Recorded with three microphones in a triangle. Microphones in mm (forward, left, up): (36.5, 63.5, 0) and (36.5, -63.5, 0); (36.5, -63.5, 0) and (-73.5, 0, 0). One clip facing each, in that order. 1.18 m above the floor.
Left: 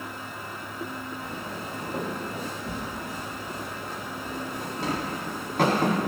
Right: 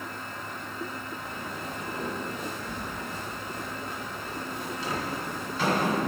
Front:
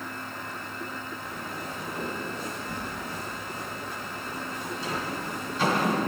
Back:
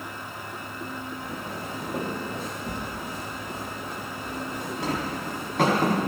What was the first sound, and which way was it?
Footsteps, 140° left.